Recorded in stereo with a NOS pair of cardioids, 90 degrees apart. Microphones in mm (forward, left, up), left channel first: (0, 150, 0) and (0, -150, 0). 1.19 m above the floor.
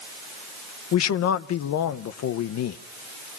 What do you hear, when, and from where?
0.9 s a man speaking: 60° left, 0.9 m